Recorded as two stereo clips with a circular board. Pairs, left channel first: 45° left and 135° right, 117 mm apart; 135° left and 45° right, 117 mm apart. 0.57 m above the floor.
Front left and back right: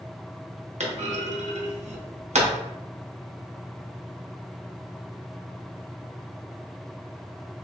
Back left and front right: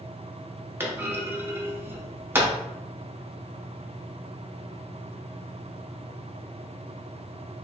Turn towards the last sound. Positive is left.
turn(degrees=-115)